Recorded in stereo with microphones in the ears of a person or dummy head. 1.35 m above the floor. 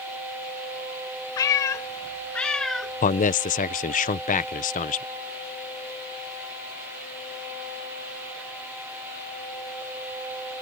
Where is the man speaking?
40° left (ahead or behind).